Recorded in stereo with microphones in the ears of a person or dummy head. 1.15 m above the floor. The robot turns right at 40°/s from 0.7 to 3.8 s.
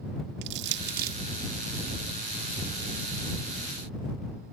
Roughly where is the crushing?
Right.